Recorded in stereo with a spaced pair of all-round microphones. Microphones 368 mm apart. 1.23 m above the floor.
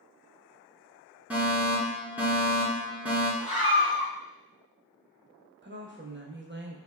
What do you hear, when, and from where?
1.3 s a fire alarm: 5° right (ahead or behind), 1.9 m
3.4 s a scream: 70° left (ahead or behind), 1.7 m
5.6 s a woman speaking: 30° right (ahead or behind), 0.9 m